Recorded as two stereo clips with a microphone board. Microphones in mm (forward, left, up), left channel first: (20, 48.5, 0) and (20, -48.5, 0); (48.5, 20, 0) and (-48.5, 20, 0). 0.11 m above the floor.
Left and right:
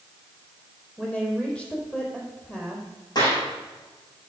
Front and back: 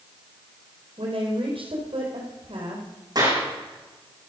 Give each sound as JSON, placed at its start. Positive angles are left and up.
{"t": 1.0, "sound": "a woman speaking", "azimuth_deg": 170, "distance_m": 3.5}
{"t": 3.1, "sound": "a clap", "azimuth_deg": 130, "distance_m": 6.0}